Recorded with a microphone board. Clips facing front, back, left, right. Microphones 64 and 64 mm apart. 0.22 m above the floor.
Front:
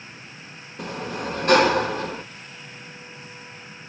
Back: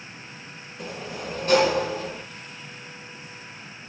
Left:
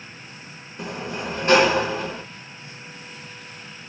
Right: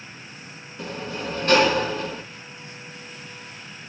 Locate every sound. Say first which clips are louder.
0.8 s a sliding door: front 5 dB, left 1 dB; 20° left, 0.7 m